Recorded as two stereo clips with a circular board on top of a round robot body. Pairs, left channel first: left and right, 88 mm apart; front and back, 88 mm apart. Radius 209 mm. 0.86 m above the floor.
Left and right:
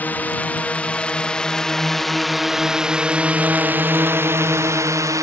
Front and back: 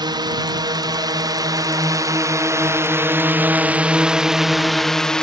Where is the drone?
160° left; by 5.2 s 75° right.